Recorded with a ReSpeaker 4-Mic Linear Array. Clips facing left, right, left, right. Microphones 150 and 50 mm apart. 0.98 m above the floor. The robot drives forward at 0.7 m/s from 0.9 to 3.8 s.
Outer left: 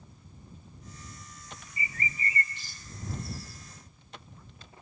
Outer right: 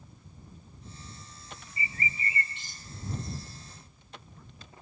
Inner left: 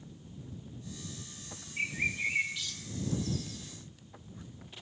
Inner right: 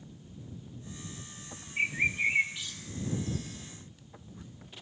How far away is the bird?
About 1.7 m.